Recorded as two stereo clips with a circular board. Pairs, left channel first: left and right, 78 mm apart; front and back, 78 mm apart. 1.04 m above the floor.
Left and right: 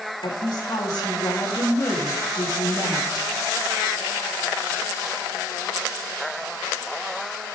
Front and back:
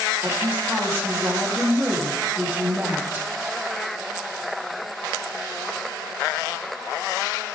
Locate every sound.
0.2 s a woman speaking: 115° left, 2.5 m